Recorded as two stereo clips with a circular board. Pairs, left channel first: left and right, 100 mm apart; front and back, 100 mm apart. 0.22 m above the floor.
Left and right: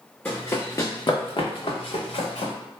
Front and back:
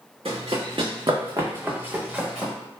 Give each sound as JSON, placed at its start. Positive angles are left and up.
{"t": 0.2, "sound": "running footsteps", "azimuth_deg": 165, "distance_m": 0.9}